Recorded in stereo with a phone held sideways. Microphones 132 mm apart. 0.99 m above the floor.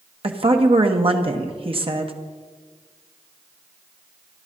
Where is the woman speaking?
45° right (ahead or behind), 1.0 m.